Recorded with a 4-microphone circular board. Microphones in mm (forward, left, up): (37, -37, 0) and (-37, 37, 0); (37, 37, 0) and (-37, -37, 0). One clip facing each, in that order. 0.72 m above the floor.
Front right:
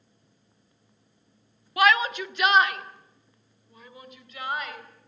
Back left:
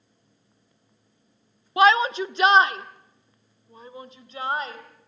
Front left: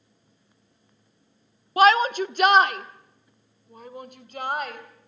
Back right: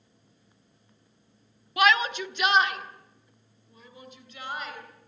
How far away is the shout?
About 0.8 m.